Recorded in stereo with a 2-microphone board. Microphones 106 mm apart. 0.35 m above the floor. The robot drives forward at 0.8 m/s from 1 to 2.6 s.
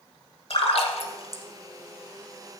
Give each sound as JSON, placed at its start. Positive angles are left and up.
{"t": 0.5, "sound": "a splash", "side_deg": 80, "distance_m": 1.2}